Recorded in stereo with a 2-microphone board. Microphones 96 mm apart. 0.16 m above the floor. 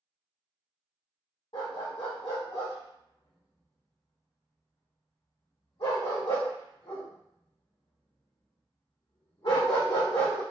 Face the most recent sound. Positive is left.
turn(degrees=80)